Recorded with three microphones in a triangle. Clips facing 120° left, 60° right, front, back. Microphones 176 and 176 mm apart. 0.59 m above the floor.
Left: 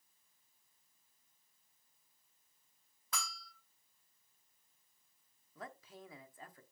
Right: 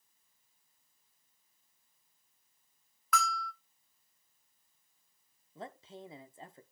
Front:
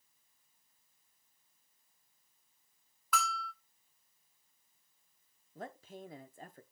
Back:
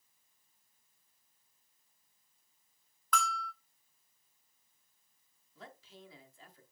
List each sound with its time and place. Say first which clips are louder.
3.1 s a bell: right 13 dB, back 1 dB; 80° left, 1.4 m
5.5 s a man speaking: right 5 dB, front 7 dB; 5° right, 1.0 m